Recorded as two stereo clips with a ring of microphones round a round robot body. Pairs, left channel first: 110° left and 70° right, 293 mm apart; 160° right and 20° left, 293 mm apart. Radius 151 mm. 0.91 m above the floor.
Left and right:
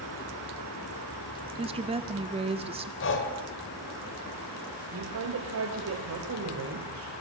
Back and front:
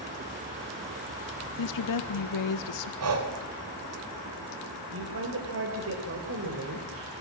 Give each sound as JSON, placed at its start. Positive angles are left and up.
{"t": 1.6, "sound": "a woman speaking", "azimuth_deg": -140, "distance_m": 2.0}
{"t": 3.0, "sound": "breathing", "azimuth_deg": 60, "distance_m": 3.5}
{"t": 4.9, "sound": "a woman speaking", "azimuth_deg": -25, "distance_m": 3.5}